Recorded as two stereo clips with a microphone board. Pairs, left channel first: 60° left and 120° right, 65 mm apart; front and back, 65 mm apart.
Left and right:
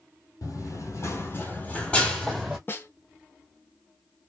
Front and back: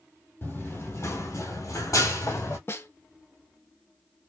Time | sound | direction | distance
0.4 | running footsteps | 55° left | 0.9 m
2.7 | a snare drum | 25° left | 0.5 m